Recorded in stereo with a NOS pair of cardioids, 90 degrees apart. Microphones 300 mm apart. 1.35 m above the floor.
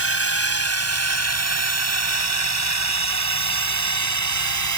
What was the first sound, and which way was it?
A drone, 50° right.